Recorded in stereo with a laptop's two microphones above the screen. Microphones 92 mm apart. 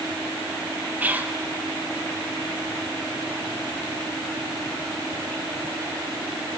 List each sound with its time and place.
1.0 s whispering: 20° right (ahead or behind), 0.9 m